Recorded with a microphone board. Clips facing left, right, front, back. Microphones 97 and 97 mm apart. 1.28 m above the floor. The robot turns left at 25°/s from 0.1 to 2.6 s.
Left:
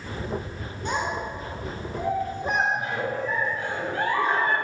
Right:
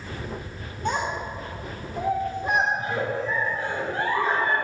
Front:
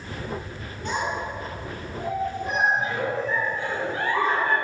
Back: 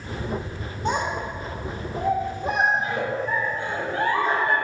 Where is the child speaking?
130° right, 2.5 m; by 2.6 s 175° right, 2.5 m.